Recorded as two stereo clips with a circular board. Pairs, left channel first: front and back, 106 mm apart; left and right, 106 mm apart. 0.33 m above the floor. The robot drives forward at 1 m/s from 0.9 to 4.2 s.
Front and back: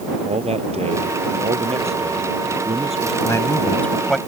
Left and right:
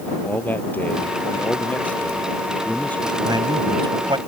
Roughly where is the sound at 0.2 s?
Behind.